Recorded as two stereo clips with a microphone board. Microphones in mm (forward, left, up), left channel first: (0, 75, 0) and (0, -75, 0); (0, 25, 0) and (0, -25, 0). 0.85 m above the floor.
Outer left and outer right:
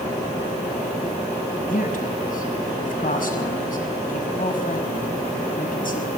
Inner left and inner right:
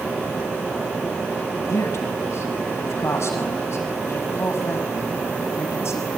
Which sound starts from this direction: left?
A man speaking, at 1.7 s.